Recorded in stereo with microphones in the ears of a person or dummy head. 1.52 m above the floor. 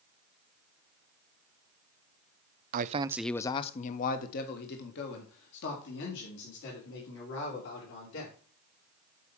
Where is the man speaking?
50° right (ahead or behind), 0.5 m; by 8.3 s 70° left (ahead or behind), 4.5 m.